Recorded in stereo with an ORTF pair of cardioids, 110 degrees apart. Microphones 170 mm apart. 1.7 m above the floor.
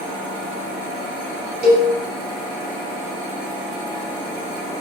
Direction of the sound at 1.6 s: 65° right.